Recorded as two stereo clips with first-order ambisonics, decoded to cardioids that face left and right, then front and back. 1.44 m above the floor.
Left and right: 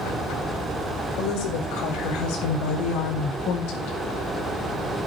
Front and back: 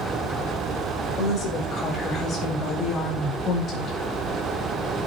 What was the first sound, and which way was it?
A woman speaking, 65° left.